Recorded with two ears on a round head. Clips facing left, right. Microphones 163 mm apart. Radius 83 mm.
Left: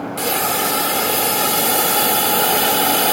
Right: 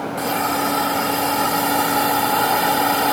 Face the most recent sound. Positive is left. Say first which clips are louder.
# even
turn(degrees=35)  # may be behind; listen again after turning